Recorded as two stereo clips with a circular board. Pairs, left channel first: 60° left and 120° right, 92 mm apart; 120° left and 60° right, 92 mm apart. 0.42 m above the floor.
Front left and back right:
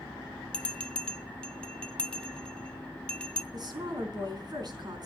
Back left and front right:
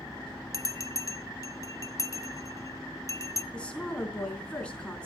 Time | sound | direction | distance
0.5 | a bell | 130° left | 0.8 m
3.5 | a woman speaking | 160° right | 4 m